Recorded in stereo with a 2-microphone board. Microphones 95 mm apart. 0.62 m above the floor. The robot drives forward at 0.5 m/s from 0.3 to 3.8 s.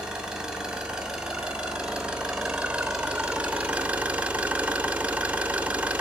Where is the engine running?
5° right (ahead or behind), 2.5 m; by 6.0 s 15° right (ahead or behind), 0.8 m.